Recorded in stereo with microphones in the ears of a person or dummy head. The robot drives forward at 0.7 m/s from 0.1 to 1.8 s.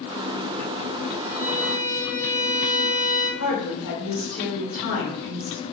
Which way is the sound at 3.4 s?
55° left (ahead or behind).